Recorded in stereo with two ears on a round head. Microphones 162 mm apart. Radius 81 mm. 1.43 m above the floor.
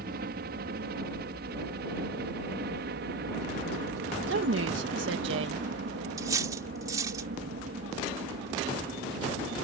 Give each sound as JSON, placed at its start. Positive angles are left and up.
{"t": 0.0, "sound": "a helicopter", "side_deg": -55}
{"t": 4.3, "sound": "a woman speaking", "side_deg": -70}
{"t": 6.2, "sound": "cutlery clinking", "side_deg": -20}